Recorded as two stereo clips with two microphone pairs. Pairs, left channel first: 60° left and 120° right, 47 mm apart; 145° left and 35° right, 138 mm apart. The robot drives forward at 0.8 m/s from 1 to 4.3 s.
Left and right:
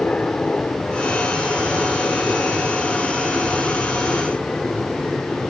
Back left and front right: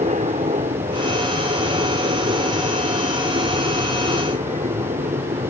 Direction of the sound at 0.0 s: 5° right.